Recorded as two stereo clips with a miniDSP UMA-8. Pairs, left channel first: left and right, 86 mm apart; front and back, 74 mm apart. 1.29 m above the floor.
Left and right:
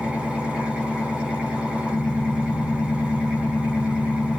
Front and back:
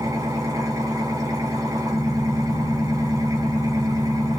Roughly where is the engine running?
Behind.